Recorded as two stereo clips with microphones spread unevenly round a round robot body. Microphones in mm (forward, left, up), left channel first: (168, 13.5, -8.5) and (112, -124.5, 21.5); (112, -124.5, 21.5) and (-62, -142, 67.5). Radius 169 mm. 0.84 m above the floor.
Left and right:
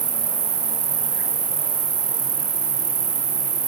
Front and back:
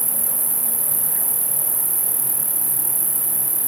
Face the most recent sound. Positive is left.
turn(degrees=-105)